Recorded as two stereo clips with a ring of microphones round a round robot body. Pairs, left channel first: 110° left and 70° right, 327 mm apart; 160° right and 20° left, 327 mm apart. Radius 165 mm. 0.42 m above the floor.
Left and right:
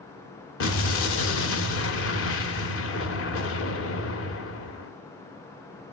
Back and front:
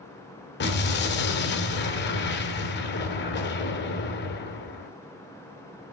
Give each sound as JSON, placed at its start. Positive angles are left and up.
{"t": 0.6, "sound": "an explosion", "azimuth_deg": 150, "distance_m": 1.3}